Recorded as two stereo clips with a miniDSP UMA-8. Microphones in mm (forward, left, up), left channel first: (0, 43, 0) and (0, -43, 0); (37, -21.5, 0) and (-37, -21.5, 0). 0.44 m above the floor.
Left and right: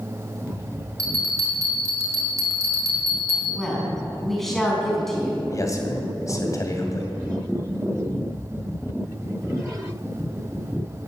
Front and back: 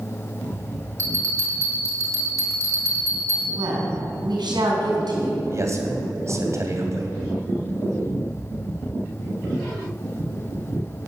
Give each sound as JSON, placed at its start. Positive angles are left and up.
{"t": 1.0, "sound": "a bell", "azimuth_deg": -135, "distance_m": 6.0}
{"t": 3.5, "sound": "a woman speaking", "azimuth_deg": 180, "distance_m": 4.0}
{"t": 5.5, "sound": "a man speaking", "azimuth_deg": 135, "distance_m": 2.5}